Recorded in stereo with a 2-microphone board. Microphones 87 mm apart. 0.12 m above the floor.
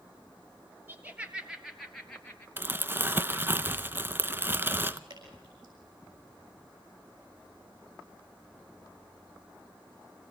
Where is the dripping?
60° right (ahead or behind), 6.5 m.